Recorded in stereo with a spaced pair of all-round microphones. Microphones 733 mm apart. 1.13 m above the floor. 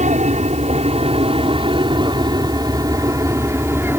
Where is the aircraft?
10° right (ahead or behind); by 4.0 s 5° right (ahead or behind).